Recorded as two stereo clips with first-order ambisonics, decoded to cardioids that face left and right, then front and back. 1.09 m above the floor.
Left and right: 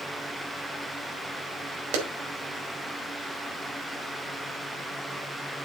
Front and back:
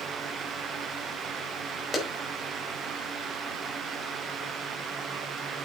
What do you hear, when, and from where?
1.9 s a clap: 75° right, 4.5 m